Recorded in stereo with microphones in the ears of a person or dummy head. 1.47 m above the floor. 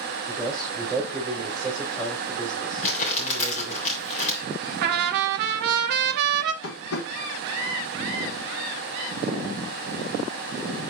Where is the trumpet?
55° right (ahead or behind), 0.7 m.